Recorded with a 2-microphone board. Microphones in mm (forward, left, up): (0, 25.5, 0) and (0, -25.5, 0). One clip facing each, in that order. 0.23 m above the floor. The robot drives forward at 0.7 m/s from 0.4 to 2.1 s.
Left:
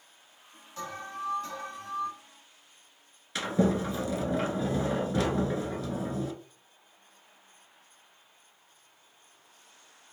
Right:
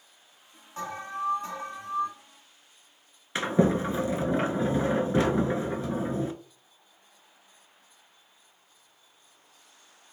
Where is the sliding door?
30° right (ahead or behind), 0.7 m.